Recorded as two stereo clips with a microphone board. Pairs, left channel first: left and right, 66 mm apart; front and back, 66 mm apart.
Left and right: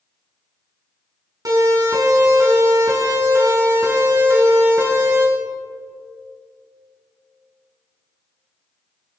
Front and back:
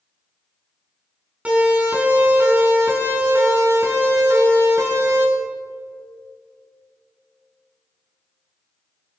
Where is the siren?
110° right, 4.5 m; by 5.2 s 140° right, 6 m.